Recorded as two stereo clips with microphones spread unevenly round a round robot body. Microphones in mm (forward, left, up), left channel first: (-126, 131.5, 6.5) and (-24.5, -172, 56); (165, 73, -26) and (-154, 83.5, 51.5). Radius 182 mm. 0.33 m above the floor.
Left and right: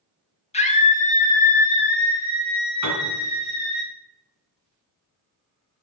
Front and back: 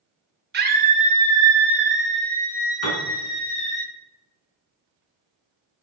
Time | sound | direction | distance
0.5 | a scream | 125° left | 1.6 m
2.8 | a piano | 25° right | 2 m